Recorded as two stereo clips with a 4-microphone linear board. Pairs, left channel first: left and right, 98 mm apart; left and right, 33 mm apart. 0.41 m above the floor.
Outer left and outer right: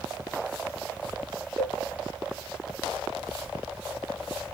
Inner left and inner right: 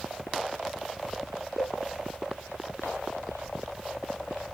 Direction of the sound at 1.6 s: 10° right (ahead or behind).